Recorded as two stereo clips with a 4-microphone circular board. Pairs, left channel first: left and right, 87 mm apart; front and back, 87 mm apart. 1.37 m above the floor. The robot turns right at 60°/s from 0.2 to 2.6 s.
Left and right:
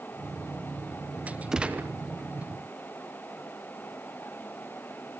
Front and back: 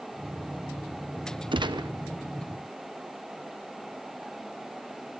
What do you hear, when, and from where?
1.5 s a gunshot: 170° right, 0.9 m; by 1.9 s 150° right, 0.9 m